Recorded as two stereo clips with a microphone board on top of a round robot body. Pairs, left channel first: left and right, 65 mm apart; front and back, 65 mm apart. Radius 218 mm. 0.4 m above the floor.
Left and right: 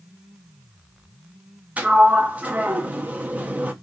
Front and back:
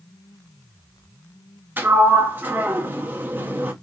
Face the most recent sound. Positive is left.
turn(degrees=-140)